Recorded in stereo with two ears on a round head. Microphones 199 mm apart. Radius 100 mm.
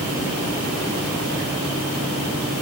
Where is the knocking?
I don't hear knocking.